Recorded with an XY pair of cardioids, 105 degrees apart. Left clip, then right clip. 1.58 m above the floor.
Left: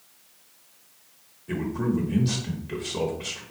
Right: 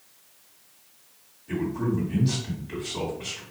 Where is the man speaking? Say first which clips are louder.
Even; 40° left, 1.1 m.